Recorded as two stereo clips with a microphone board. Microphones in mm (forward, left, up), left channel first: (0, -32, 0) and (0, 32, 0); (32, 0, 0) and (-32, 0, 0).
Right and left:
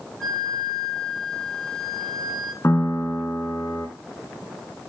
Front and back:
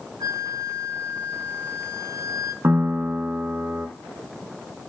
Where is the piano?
135° right, 3.5 m.